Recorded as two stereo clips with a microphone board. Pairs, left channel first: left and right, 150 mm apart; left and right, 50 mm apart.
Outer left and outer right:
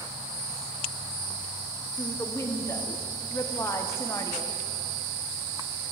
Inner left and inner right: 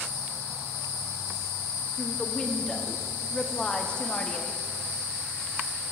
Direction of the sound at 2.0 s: 20° left (ahead or behind).